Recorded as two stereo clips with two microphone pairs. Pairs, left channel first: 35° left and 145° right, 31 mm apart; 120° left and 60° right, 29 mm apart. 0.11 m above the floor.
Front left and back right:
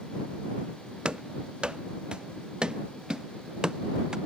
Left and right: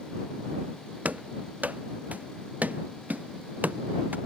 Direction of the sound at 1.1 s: 90° right.